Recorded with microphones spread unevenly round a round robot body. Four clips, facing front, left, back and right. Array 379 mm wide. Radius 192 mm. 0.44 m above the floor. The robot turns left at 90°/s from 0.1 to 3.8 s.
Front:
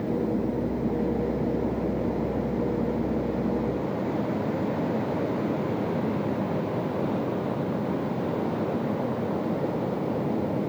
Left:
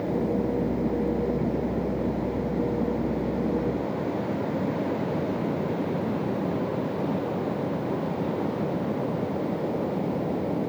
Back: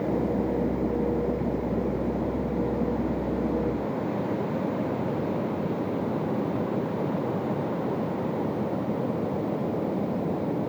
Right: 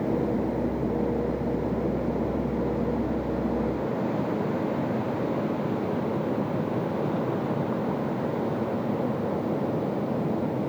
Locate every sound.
Only background noise.